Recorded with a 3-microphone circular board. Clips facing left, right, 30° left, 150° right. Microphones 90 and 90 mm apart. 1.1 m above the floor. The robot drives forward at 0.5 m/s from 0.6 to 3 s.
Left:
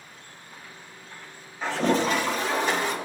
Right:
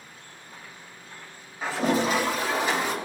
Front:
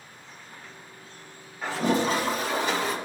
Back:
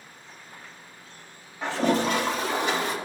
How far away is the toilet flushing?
About 1.4 m.